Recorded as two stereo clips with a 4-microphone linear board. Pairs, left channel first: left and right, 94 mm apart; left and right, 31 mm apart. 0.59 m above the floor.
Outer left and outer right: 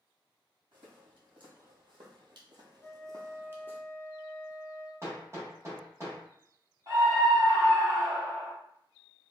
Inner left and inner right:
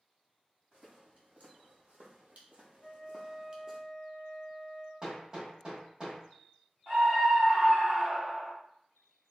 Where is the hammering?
30° right (ahead or behind), 1.0 m.